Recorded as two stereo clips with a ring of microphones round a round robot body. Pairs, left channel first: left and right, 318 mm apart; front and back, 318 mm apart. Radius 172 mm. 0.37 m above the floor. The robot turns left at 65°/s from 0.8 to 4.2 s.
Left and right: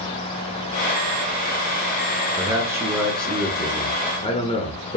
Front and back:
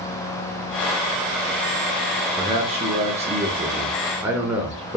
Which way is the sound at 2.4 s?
135° right.